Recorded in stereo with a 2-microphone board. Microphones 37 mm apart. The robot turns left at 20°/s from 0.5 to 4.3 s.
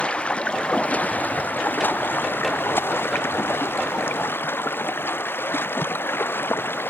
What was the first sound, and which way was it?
Running water, 145° left.